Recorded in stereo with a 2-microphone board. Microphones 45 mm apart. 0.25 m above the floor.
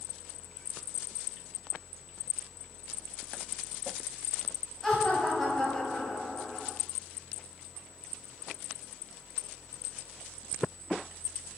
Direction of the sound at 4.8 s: 5° left (ahead or behind).